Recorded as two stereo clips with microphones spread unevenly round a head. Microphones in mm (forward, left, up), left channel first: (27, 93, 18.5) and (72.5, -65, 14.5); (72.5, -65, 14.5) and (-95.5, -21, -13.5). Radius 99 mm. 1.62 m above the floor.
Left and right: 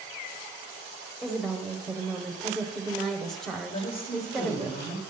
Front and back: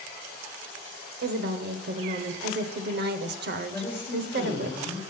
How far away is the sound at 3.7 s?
About 3 m.